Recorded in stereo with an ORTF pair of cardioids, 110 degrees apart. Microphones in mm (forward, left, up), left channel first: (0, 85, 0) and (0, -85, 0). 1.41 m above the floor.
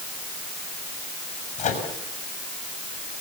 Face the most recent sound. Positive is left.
turn(degrees=50)